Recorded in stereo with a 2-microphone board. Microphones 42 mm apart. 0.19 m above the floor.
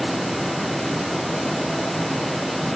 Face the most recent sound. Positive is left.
No sound to turn to.